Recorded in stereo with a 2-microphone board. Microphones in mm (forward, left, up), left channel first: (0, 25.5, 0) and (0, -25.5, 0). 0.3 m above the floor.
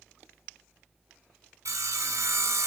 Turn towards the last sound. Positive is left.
turn(degrees=-80)